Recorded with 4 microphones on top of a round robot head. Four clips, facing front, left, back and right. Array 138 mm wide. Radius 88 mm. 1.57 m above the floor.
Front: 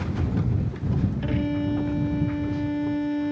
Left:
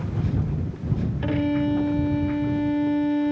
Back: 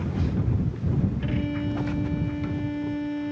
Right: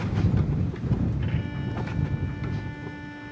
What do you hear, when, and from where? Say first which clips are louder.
1.2 s a violin: left 10 dB, front 3 dB; 75° left